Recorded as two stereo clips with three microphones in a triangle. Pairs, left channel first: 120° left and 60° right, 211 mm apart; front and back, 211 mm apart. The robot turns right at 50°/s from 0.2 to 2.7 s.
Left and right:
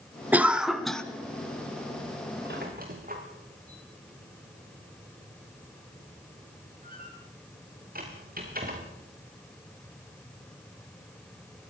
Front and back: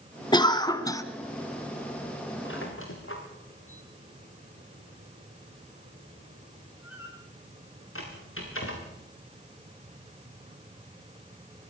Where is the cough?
5° left, 1.3 m; by 1.0 s 40° left, 1.3 m.